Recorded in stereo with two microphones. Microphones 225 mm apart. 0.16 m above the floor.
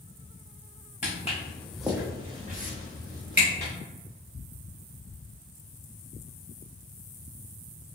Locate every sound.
1.0 s footsteps: 35° left (ahead or behind), 0.7 m; by 3.7 s 55° right (ahead or behind), 1.3 m